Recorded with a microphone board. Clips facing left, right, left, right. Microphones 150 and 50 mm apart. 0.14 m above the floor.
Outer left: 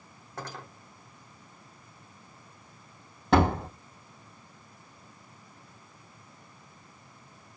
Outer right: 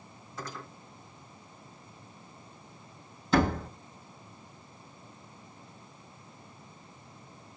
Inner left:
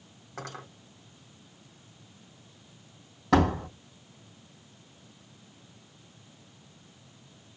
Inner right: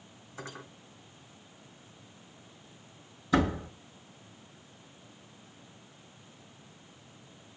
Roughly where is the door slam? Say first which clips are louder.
Outer left 3 dB, inner left 4 dB; left.